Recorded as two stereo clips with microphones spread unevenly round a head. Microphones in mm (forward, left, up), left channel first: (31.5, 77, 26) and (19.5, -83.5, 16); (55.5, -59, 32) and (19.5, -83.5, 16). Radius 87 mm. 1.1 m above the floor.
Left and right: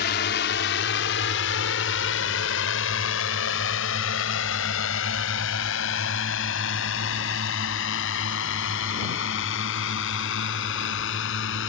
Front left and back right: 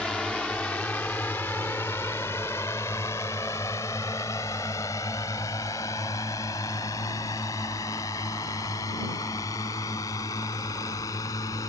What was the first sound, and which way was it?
A drone, 120° left.